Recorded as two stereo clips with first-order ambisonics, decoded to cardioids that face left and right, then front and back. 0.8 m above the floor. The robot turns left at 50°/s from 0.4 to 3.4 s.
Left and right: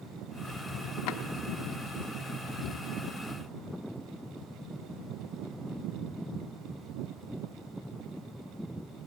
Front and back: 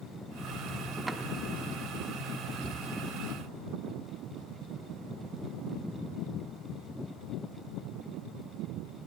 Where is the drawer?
105° left, 0.8 m; by 1.2 s 95° left, 0.8 m.